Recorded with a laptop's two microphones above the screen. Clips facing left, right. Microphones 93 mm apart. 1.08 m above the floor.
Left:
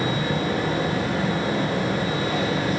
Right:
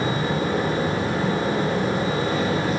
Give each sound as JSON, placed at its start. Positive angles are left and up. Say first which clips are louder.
{"t": 0.0, "sound": "a fan", "louder": "right 1 dB", "side_deg": -30, "distance_m": 1.8}